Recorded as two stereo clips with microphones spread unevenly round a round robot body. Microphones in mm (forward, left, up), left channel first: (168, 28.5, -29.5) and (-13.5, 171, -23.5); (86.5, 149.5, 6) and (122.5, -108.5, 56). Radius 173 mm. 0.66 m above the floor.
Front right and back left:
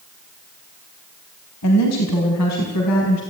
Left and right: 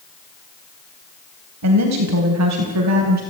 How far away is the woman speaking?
About 4 m.